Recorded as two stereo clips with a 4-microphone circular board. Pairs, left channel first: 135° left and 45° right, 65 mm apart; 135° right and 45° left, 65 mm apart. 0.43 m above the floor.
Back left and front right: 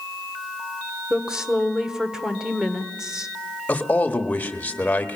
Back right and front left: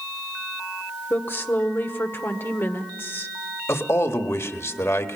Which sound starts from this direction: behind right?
A woman speaking, at 1.1 s.